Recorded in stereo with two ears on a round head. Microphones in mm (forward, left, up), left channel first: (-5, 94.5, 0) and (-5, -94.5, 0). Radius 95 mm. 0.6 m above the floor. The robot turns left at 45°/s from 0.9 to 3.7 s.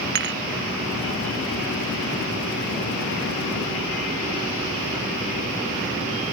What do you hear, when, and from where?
0.1 s dishes clattering: 55° right (ahead or behind)